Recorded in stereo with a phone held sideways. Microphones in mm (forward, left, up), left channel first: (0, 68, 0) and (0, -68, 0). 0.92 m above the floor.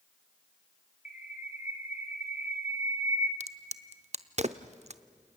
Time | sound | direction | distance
1.1 | a bird | 65° left (ahead or behind) | 1.6 m
3.4 | a crack | 55° right (ahead or behind) | 0.8 m